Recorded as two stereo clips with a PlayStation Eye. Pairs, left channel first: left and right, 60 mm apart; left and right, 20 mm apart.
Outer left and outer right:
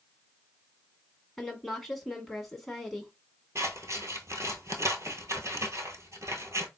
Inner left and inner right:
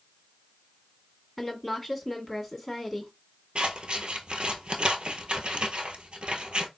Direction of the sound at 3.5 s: 60° right (ahead or behind).